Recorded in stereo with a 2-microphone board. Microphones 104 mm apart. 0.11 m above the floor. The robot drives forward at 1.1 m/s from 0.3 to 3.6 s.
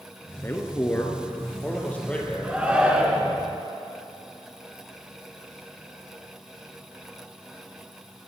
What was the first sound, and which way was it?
A man speaking, 25° left (ahead or behind).